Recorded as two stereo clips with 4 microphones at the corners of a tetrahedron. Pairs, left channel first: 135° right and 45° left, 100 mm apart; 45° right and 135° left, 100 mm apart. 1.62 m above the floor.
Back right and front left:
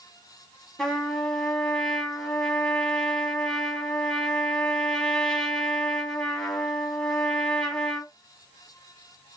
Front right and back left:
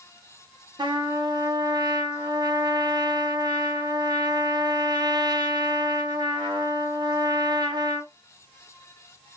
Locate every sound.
0.8 s a trumpet: 145° left, 1.0 m